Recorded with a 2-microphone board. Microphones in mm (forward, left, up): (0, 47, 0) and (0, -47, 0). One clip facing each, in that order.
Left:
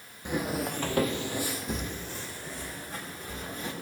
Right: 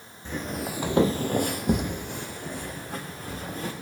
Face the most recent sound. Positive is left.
turn(degrees=-55)  # may be behind; listen again after turning